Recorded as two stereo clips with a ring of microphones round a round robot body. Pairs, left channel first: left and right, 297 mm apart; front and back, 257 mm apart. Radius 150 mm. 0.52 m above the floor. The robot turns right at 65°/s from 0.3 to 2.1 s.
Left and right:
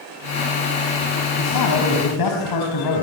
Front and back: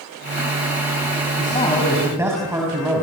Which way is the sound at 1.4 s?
55° left.